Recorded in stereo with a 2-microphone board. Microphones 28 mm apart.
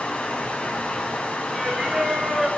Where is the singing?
20° right (ahead or behind), 3.5 m.